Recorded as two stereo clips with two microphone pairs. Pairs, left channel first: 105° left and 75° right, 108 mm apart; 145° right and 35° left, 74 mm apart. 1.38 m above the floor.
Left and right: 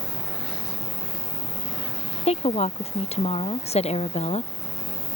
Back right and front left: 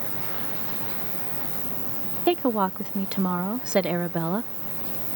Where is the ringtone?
No ringtone in this recording.